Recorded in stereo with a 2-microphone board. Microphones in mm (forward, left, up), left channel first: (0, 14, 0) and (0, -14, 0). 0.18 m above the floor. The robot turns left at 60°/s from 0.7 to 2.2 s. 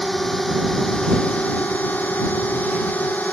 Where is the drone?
170° left; by 3.3 s 80° left.